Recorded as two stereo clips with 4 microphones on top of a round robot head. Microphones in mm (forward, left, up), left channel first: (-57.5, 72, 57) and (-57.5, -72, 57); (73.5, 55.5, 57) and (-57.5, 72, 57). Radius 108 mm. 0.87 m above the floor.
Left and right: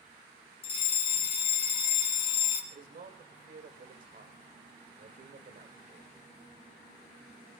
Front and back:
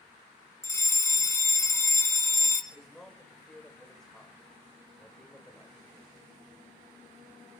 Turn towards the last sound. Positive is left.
turn(degrees=-95)